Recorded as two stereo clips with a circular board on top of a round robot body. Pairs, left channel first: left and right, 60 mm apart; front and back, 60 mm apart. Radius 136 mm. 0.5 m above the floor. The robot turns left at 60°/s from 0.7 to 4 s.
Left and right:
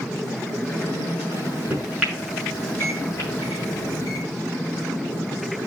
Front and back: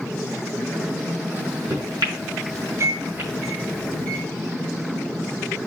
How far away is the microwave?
About 6.5 m.